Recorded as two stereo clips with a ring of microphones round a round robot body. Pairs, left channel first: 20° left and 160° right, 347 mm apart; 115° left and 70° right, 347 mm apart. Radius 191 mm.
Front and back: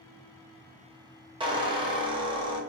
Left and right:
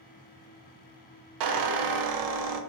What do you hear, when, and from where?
1.4 s a squeak: 80° right, 0.5 m